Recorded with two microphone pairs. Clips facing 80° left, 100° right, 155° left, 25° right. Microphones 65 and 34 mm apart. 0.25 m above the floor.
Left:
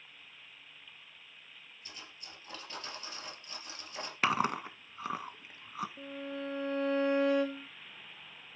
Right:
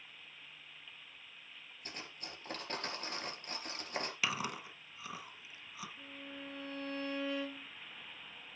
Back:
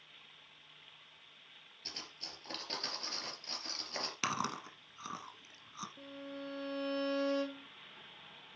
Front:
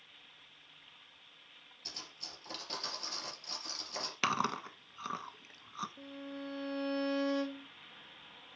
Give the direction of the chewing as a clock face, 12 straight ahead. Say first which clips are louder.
Left 13 dB, front 5 dB; 10 o'clock.